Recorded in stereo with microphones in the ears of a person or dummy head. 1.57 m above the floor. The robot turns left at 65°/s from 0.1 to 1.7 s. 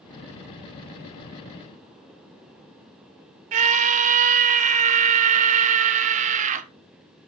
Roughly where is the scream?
Right.